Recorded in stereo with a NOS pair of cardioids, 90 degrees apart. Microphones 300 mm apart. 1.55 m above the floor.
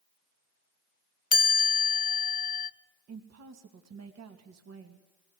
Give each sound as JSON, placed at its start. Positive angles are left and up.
{"t": 1.3, "sound": "a chime", "azimuth_deg": 30, "distance_m": 1.4}
{"t": 3.1, "sound": "a woman speaking", "azimuth_deg": -60, "distance_m": 2.5}